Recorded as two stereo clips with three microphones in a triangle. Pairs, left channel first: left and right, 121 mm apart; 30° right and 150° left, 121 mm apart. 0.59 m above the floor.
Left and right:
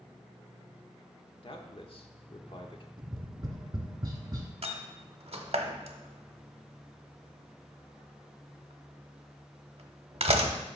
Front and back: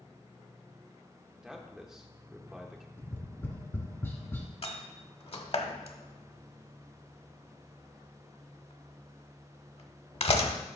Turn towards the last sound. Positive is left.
turn(degrees=-60)